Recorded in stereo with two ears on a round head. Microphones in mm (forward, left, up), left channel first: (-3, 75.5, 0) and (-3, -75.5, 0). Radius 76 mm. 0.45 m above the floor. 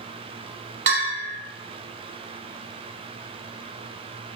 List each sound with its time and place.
0.9 s a bell: 50° right (ahead or behind), 1.3 m